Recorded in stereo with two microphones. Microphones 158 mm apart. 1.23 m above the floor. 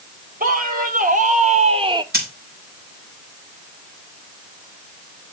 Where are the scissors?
80° right, 5 m.